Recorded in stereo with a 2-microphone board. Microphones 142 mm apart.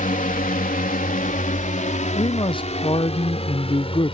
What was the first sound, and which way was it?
A drone, 65° left (ahead or behind).